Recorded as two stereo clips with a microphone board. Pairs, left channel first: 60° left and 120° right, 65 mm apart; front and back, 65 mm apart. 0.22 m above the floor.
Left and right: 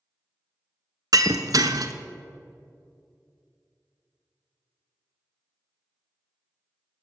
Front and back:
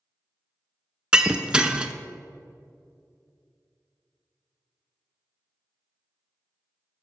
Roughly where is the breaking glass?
Right.